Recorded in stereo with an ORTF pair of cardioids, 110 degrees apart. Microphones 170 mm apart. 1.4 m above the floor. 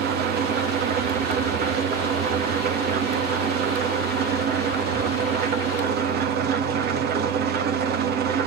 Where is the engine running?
70° right, 2.5 m.